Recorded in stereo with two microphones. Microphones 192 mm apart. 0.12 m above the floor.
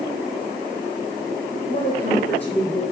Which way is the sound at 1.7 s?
20° left (ahead or behind).